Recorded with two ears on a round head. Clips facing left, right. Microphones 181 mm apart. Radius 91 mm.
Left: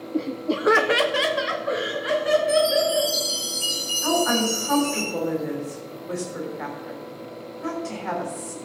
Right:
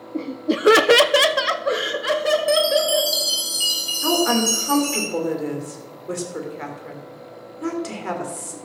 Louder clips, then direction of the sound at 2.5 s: Right 1 dB; 75° right (ahead or behind).